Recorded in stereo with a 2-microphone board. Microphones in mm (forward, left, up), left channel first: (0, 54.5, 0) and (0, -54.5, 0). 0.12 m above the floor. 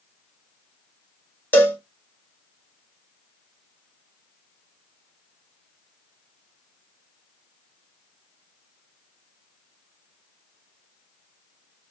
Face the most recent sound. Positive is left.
turn(degrees=20)  # may be behind; listen again after turning